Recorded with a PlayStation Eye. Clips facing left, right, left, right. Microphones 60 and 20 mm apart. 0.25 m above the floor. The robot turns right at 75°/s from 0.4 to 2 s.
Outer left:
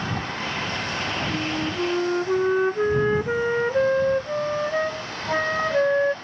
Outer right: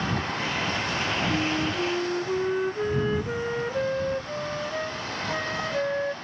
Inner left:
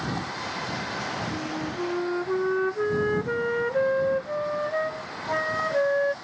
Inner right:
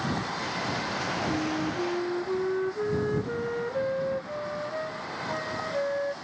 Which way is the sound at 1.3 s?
15° right.